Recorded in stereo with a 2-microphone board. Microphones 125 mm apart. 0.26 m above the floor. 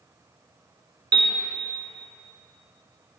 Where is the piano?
35° right (ahead or behind), 0.9 m.